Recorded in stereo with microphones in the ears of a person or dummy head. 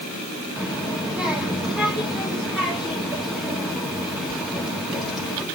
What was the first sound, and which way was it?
A child speaking, 5° right (ahead or behind).